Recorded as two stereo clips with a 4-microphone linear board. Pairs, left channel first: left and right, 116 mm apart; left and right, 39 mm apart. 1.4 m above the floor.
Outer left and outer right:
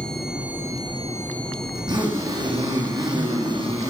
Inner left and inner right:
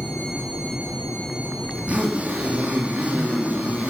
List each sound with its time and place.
1.7 s a zipper: 40° right (ahead or behind), 2.5 m